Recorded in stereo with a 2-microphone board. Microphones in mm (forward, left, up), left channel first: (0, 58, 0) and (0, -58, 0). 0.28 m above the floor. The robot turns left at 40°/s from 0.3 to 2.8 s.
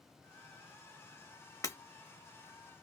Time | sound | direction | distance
1.6 | breaking glass | 30° left (ahead or behind) | 0.7 m